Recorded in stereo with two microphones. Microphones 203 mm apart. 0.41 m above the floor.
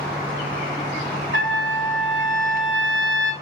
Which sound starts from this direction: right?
A trumpet, at 1.3 s.